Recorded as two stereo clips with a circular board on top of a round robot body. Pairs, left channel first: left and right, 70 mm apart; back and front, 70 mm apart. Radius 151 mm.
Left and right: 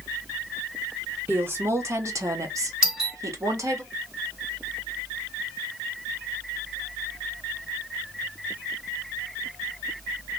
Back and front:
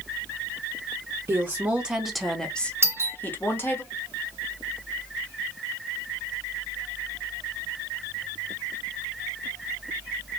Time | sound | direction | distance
1.3 | a woman speaking | 40° right | 1.0 m
2.8 | a doorbell | 15° right | 1.9 m